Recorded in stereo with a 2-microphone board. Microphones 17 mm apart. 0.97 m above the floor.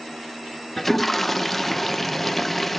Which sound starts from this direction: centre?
A toilet flushing, at 0.8 s.